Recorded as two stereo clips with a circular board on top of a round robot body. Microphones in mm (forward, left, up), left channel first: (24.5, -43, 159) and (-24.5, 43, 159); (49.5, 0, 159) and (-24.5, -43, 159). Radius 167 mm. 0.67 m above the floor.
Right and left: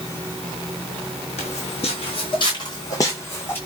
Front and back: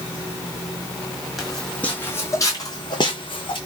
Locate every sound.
1.4 s footsteps: 60° right, 1.3 m; by 3.6 s 10° left, 1.8 m